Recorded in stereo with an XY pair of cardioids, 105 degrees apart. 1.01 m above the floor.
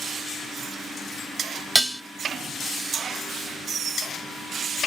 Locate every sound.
1.8 s dishes clattering: 10° right, 0.6 m